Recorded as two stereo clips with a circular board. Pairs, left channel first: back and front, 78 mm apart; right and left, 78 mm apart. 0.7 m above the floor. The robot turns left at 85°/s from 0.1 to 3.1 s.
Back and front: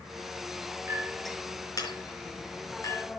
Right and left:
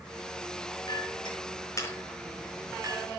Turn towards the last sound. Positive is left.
turn(degrees=110)